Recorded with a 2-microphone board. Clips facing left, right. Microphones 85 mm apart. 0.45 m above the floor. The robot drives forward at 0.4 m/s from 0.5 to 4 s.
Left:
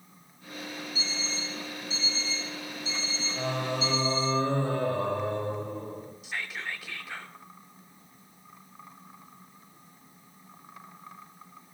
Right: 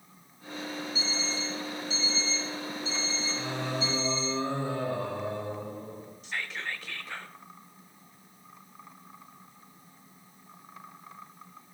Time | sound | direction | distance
0.9 | an alarm clock | 45° left (ahead or behind) | 3.5 m
3.4 | singing | 50° left (ahead or behind) | 1.4 m
6.2 | whispering | 5° left (ahead or behind) | 0.7 m